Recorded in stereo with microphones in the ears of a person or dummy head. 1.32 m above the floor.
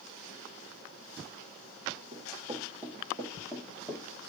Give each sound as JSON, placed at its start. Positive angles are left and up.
{"t": 2.1, "sound": "running footsteps", "side_deg": -25, "distance_m": 2.0}